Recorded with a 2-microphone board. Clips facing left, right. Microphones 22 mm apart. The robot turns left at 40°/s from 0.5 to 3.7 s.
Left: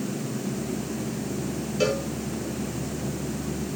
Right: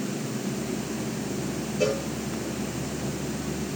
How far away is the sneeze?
I don't hear a sneeze.